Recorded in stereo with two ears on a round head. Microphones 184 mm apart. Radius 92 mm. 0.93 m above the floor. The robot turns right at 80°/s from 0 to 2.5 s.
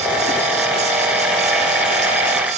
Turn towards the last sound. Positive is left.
No sound to turn to.